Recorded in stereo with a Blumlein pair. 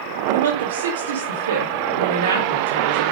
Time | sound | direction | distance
0.3 | a woman speaking | 60° right | 1.8 m